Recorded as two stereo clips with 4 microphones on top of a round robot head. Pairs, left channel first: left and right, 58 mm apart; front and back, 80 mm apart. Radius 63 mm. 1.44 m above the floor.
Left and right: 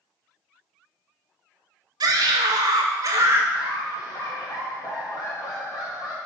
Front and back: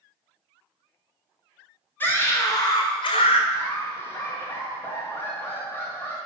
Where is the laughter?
60° left, 3 m.